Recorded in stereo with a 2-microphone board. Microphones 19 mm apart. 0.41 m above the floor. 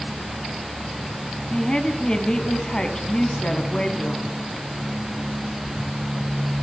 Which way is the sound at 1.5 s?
50° left (ahead or behind).